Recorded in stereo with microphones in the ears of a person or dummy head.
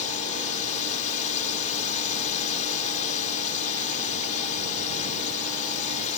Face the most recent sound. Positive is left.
turn(degrees=35)  # may be behind; listen again after turning